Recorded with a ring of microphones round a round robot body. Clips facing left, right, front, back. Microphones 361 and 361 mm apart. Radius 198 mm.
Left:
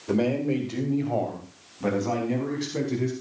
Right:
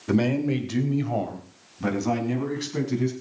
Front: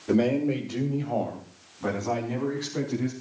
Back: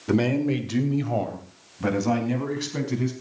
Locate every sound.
0.1 s a man speaking: 125° right, 2 m; by 3.1 s 150° right, 5.5 m